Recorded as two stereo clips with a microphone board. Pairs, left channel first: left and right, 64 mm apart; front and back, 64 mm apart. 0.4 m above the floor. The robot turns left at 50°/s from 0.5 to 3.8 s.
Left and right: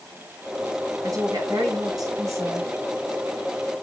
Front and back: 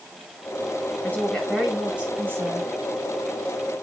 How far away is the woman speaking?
About 6.5 m.